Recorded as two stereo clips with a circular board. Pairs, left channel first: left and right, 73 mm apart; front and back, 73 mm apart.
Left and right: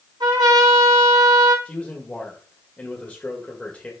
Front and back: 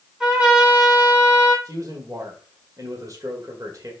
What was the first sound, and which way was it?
A trumpet, 95° right.